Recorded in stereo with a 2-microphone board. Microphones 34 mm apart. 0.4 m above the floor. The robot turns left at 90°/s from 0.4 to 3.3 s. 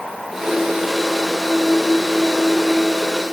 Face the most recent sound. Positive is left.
No sound to turn to.